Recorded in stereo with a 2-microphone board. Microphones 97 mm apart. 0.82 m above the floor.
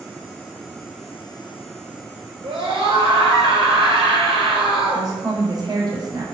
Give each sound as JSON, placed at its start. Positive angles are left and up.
{"t": 2.4, "sound": "a scream", "side_deg": -70, "distance_m": 3.0}
{"t": 4.9, "sound": "a woman speaking", "side_deg": -45, "distance_m": 3.0}